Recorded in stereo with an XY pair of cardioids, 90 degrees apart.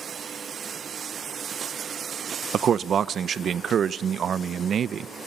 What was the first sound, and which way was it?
A man speaking, 60° right.